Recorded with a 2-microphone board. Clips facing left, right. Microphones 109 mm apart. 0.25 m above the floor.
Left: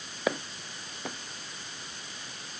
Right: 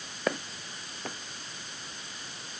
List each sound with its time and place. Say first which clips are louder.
0.3 s footsteps: left 1 dB; 5° left (ahead or behind)